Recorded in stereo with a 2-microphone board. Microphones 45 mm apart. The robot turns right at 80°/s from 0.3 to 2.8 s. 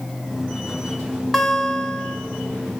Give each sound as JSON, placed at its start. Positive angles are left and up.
{"t": 1.3, "sound": "a guitar", "side_deg": 5, "distance_m": 1.1}